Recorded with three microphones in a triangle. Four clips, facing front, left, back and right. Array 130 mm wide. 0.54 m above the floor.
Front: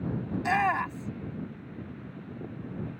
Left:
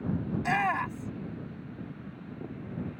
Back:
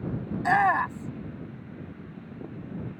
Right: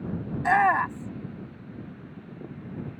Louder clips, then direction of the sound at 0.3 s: Right 8 dB, back 4 dB; 120° right.